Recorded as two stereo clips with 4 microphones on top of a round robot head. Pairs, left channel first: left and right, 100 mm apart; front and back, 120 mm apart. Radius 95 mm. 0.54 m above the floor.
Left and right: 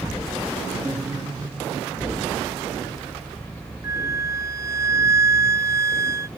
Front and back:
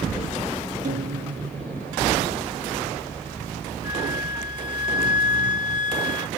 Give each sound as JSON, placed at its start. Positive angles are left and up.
{"t": 0.8, "sound": "a guitar", "azimuth_deg": -170}
{"t": 3.8, "sound": "a flute", "azimuth_deg": -25}